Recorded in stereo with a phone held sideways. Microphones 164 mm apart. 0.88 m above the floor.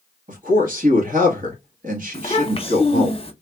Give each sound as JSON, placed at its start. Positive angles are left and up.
{"t": 0.3, "sound": "a man speaking", "side_deg": -55, "distance_m": 1.3}
{"t": 2.1, "sound": "a child speaking", "side_deg": 35, "distance_m": 0.7}